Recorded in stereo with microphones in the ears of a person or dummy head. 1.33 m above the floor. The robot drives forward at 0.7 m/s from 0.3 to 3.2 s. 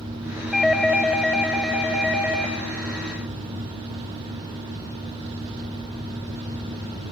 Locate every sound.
0.5 s a doorbell: centre (ahead or behind), 0.7 m